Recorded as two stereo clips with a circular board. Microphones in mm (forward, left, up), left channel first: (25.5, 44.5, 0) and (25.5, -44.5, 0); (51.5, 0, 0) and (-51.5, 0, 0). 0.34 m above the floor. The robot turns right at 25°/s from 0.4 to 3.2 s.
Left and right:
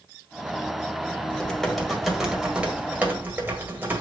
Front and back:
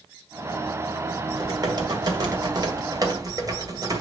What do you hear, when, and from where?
1.3 s typing on a keyboard: 165° left, 1.7 m; by 4.0 s 150° right, 1.7 m